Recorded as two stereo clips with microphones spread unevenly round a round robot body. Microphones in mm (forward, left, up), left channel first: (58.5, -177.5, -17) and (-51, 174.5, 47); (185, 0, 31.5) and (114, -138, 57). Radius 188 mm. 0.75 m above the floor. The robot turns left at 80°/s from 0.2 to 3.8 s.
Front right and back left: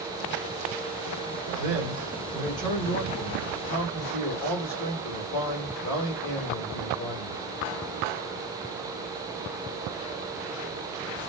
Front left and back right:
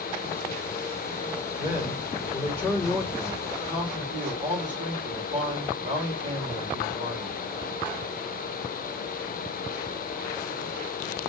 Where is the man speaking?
90° left, 2 m; by 7.4 s 85° right, 2 m.